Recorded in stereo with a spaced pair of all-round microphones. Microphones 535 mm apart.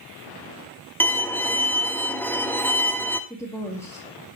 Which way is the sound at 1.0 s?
5° left (ahead or behind).